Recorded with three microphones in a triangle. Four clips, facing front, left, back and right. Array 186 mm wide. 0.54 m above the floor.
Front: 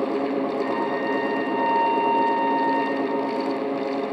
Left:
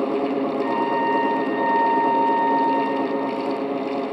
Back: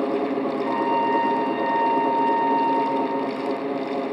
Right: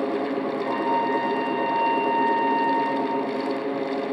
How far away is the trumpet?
About 8.5 m.